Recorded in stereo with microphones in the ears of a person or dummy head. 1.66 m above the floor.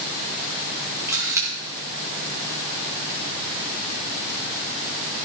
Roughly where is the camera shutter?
Centre.